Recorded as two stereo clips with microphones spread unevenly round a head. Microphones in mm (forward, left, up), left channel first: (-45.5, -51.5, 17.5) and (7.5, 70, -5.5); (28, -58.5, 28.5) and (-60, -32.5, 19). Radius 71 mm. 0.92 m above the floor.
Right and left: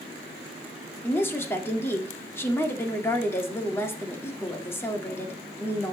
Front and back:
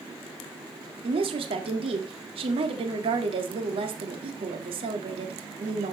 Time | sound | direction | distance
1.0 | a woman speaking | 170° left | 1.7 m